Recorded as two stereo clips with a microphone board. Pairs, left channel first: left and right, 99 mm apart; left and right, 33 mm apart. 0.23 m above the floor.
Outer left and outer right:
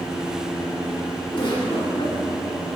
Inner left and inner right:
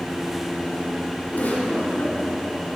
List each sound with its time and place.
1.3 s a giggle: 50° left (ahead or behind), 3.5 m